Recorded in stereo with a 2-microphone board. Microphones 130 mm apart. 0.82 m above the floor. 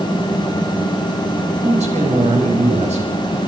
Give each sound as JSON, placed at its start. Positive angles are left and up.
{"t": 1.6, "sound": "a man speaking", "side_deg": -60, "distance_m": 4.5}